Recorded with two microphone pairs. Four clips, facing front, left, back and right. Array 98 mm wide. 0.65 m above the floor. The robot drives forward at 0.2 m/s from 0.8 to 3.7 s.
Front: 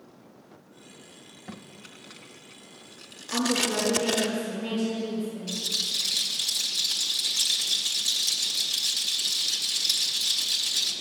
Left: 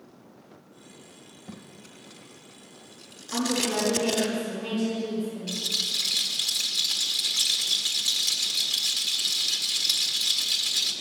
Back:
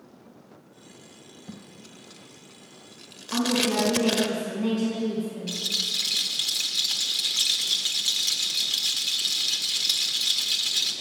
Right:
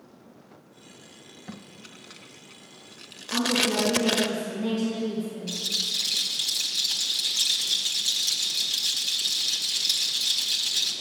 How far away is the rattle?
About 1.5 m.